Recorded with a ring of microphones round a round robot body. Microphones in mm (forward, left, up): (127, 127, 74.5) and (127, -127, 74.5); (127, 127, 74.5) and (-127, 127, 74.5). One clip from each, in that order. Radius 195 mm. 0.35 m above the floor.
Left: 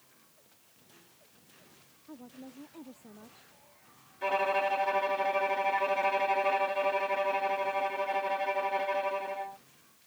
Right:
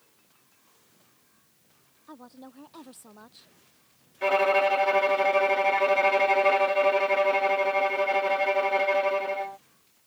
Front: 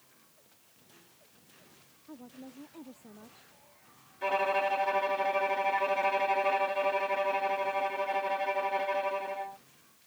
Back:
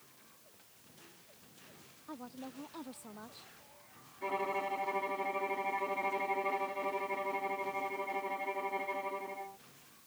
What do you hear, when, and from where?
2.1 s a woman speaking: 115° right
4.2 s a violin: 45° right